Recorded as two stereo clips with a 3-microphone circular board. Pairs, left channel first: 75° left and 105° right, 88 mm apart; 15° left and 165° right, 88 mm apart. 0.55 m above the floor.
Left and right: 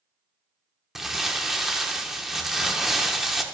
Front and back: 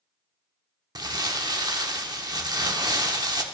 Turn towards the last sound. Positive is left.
turn(degrees=170)